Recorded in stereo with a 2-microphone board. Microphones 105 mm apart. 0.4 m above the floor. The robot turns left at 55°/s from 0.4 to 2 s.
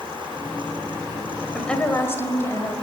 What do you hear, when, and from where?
1.5 s a woman speaking: 5° left (ahead or behind), 1.7 m; by 2.7 s 25° left (ahead or behind), 1.7 m